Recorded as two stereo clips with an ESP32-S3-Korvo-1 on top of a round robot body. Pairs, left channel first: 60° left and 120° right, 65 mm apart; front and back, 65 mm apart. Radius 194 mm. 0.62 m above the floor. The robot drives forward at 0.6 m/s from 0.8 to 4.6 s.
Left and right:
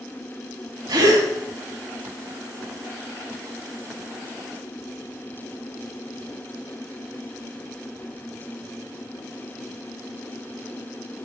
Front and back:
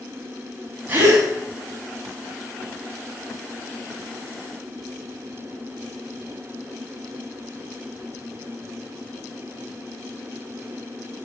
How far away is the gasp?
About 0.8 m.